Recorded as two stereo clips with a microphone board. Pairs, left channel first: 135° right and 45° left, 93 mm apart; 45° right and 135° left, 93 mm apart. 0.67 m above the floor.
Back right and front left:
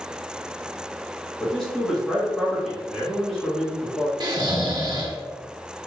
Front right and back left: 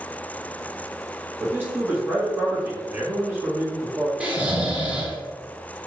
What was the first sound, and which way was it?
A man speaking, 145° left.